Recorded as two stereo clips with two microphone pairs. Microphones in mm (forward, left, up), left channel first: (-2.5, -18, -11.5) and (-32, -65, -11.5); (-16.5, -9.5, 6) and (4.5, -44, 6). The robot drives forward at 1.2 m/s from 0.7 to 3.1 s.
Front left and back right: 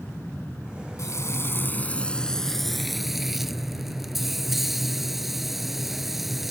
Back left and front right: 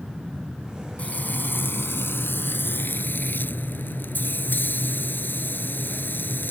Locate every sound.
1.0 s frying: 70° left; by 6.5 s 155° left